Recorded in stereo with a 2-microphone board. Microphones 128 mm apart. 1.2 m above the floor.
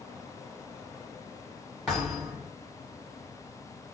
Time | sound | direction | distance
1.9 | a thud | centre (ahead or behind) | 1.6 m